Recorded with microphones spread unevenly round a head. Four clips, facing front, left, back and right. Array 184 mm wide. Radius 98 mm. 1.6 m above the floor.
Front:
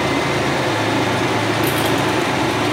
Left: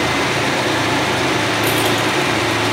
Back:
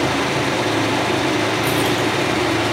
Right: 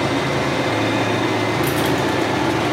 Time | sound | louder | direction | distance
1.6 | keys jangling | left 1 dB, front 1 dB | 20° right | 1.9 m